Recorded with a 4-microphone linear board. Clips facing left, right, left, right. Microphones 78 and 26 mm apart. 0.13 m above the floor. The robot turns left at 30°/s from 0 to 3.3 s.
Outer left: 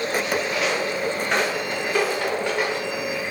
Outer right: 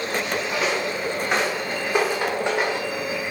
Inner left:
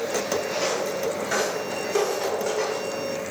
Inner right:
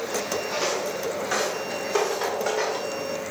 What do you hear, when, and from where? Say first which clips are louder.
0.5 s footsteps: even, inner left 1 dB; 15° right (ahead or behind), 1.4 m; by 2.9 s 25° right (ahead or behind), 1.0 m